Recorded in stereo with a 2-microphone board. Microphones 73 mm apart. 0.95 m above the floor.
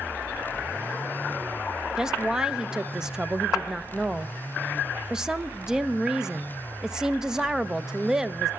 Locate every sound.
2.0 s a woman speaking: 10° right (ahead or behind), 0.5 m